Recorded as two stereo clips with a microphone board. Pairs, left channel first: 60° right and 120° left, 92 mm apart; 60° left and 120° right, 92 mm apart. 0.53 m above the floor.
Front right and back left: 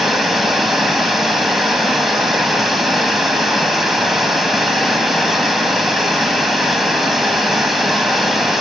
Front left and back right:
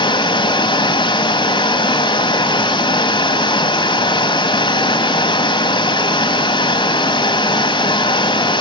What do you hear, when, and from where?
0.0 s running water: 30° left, 1.8 m